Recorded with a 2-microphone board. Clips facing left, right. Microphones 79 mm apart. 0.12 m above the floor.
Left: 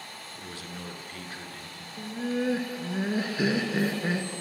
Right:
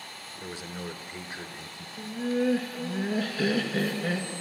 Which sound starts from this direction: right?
A man speaking, at 0.4 s.